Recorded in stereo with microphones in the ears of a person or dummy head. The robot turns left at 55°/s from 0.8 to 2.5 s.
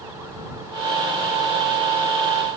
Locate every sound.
Only background noise.